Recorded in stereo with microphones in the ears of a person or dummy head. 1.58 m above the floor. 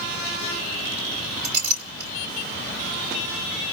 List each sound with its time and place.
1.4 s a clink: 55° right (ahead or behind), 3 m